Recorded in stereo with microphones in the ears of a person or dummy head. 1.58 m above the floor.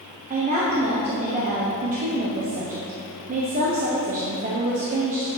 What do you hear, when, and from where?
0.3 s a woman speaking: 35° right (ahead or behind), 0.8 m